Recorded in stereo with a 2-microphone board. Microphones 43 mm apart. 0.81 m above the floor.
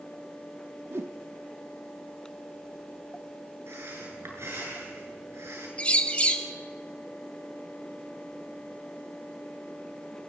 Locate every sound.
0.9 s a whoosh: 70° right (ahead or behind), 0.9 m
3.7 s breathing: 85° right, 7 m
5.8 s a bird: 30° left (ahead or behind), 2.5 m